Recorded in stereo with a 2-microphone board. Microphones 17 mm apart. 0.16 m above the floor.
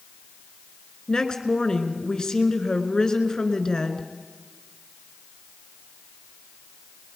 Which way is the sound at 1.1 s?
45° left (ahead or behind).